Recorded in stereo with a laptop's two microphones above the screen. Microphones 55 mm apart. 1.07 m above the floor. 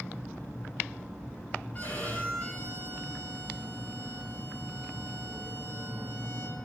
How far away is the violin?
About 4.5 m.